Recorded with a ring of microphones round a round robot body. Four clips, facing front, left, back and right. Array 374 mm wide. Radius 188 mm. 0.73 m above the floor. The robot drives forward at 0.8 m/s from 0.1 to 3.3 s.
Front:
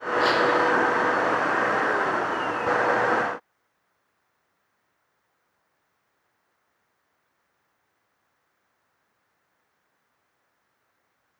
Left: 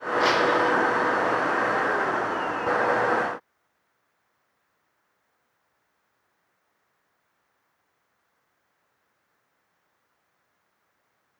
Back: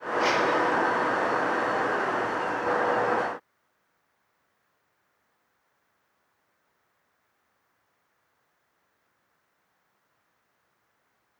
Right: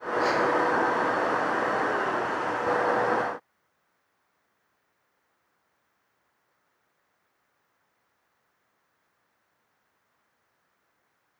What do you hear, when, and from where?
0.2 s breaking glass: 80° left; by 0.8 s 85° left